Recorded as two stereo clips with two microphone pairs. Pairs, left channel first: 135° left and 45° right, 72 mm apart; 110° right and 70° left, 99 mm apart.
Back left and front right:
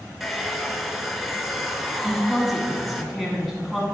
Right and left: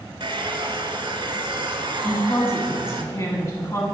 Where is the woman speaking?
135° right, 1.2 m.